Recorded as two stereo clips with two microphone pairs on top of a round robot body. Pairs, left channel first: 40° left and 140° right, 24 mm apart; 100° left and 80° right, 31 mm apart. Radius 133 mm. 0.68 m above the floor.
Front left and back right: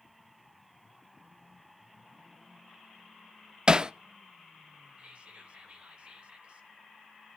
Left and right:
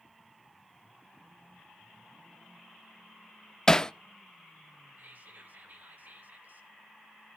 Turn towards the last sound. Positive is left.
turn(degrees=-105)